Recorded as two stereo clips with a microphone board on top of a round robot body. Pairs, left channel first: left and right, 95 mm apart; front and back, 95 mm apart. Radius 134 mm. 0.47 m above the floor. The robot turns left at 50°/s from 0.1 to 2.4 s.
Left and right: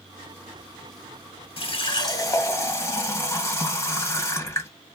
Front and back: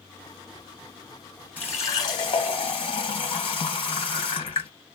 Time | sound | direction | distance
1.6 | a running tap | 70° left | 2.5 m